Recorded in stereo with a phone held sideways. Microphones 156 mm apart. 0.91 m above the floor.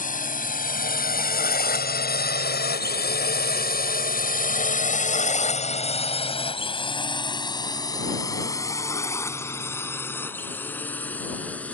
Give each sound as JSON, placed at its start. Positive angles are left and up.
{"t": 0.0, "sound": "a drone", "side_deg": 55}